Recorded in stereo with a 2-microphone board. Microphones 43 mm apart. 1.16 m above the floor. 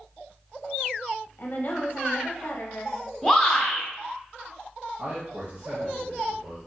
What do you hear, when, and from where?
1.4 s a woman speaking: 55° left (ahead or behind), 0.7 m
3.2 s a shout: centre (ahead or behind), 0.8 m
5.0 s a man speaking: 60° right (ahead or behind), 0.9 m